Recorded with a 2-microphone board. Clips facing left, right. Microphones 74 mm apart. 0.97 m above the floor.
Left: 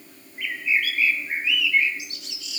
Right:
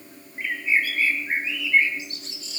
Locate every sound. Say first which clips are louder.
0.4 s a bird: right 1 dB; 35° right (ahead or behind), 7 m